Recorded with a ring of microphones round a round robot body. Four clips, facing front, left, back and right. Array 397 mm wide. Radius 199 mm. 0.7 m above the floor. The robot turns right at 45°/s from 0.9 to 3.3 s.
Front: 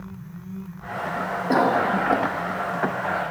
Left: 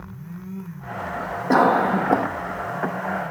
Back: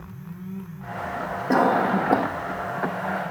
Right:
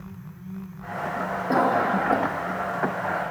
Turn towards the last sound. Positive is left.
turn(degrees=175)